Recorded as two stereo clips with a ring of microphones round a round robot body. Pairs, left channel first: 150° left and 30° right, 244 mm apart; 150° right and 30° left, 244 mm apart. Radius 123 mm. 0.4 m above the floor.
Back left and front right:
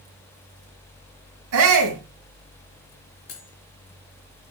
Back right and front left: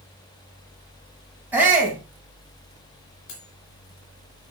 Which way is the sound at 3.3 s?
160° right.